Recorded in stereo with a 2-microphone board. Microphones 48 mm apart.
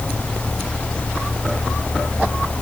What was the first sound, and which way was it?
Only background noise.